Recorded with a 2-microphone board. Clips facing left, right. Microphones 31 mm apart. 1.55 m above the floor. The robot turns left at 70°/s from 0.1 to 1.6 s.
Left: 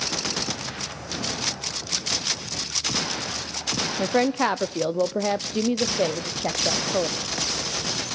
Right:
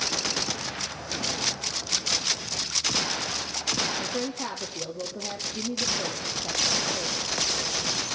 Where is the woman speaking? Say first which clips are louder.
Left 9 dB; 55° left (ahead or behind), 0.5 m.